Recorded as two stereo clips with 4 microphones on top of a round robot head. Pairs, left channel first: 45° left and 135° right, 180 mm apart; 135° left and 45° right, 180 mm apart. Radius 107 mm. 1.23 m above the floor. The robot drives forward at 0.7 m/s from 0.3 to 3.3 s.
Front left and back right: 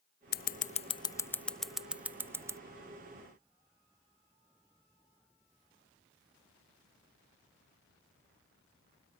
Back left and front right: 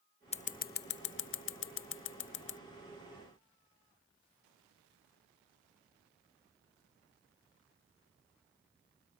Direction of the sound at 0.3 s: 80° left.